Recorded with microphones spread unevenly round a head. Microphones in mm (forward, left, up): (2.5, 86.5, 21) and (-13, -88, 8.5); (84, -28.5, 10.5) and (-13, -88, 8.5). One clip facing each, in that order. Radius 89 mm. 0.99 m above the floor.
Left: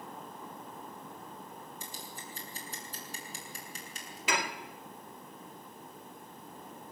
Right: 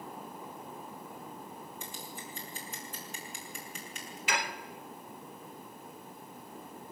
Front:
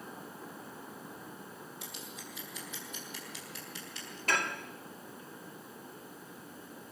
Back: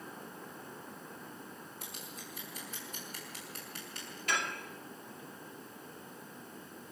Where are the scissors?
140° left, 7 m.